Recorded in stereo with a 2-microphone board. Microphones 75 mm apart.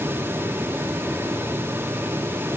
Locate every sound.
Only background noise.